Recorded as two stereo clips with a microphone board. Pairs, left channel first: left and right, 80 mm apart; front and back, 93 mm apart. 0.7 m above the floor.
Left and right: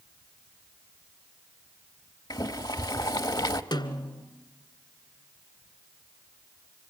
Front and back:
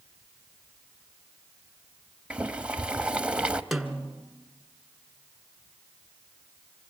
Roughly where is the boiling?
Left.